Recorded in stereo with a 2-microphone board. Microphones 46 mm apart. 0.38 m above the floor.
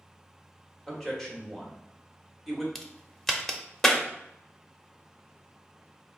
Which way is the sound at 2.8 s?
10° left (ahead or behind).